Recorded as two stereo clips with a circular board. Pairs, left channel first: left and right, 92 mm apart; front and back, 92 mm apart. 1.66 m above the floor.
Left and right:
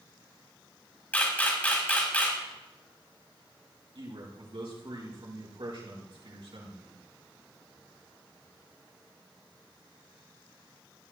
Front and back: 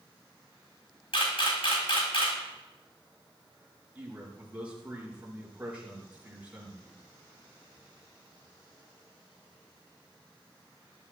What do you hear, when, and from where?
1.1 s a camera shutter: 20° left, 4 m
4.0 s a man speaking: 105° right, 5 m